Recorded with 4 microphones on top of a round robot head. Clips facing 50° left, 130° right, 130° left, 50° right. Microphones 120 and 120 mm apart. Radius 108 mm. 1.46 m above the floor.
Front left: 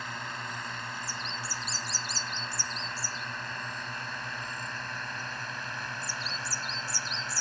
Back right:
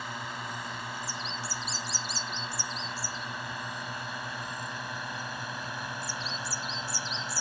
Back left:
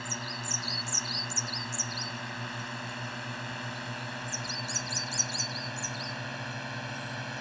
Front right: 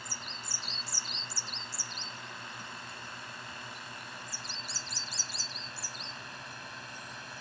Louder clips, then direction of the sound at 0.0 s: Back right 1 dB, back left 7 dB; 145° left.